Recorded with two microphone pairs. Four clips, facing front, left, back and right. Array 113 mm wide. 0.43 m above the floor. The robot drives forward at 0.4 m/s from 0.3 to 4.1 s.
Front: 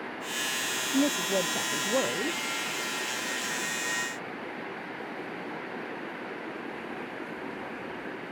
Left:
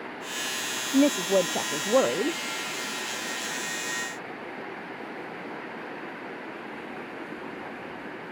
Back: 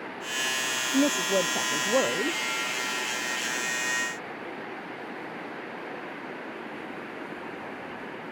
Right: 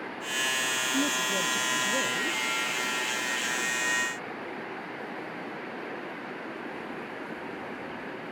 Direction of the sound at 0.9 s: 105° left.